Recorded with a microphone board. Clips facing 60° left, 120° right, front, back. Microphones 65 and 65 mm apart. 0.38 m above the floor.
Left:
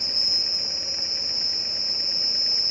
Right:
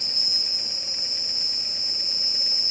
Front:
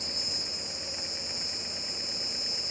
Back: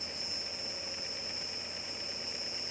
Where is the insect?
5° right.